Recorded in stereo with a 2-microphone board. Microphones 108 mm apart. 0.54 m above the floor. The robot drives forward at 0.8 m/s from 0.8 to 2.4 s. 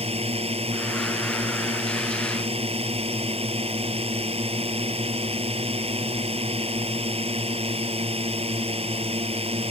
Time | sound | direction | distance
0.0 | a drone | 70° right (ahead or behind) | ?